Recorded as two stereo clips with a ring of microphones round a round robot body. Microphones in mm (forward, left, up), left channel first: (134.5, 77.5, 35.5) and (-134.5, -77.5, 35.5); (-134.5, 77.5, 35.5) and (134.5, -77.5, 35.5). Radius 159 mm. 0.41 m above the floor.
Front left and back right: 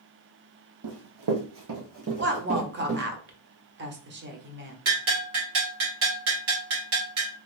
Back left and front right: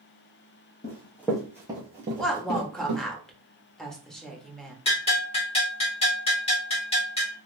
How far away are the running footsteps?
About 1.3 m.